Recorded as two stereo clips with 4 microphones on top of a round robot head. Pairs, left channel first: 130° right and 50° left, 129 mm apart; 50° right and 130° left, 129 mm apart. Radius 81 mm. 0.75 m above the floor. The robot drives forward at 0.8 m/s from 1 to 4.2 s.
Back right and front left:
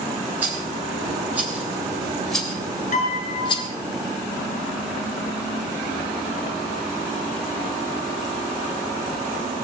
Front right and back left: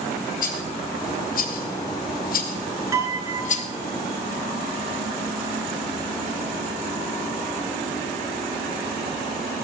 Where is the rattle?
30° right, 2.5 m; by 3.7 s 80° right, 1.4 m.